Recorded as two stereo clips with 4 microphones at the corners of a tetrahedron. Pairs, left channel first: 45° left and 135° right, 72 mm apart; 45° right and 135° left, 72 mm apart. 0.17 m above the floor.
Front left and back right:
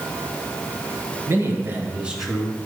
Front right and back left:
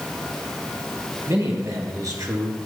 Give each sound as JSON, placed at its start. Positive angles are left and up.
{"t": 1.3, "sound": "a man speaking", "azimuth_deg": 175, "distance_m": 2.5}